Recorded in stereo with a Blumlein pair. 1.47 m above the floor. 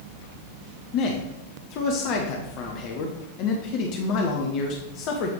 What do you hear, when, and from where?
0.9 s a man speaking: 40° left, 0.9 m